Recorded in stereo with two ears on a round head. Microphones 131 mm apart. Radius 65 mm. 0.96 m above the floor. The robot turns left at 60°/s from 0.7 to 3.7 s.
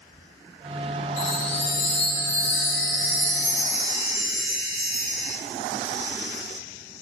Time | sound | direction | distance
1.2 | a chime | 90° left | 6.5 m